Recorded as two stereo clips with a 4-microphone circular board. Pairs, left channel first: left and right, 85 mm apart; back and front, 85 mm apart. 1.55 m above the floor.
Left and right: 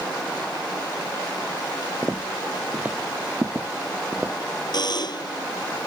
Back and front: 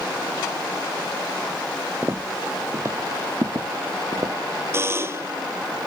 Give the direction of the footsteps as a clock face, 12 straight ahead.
1 o'clock.